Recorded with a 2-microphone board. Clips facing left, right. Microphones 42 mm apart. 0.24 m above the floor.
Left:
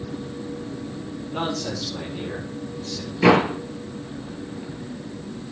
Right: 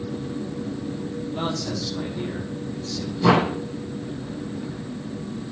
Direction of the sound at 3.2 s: 75° left (ahead or behind).